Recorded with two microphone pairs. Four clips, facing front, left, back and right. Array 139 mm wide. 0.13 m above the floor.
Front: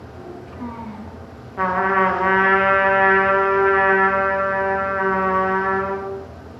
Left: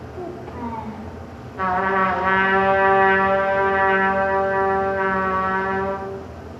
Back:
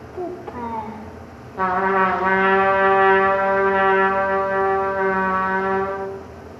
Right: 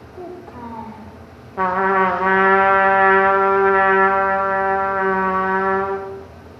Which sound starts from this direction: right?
A trumpet, at 1.6 s.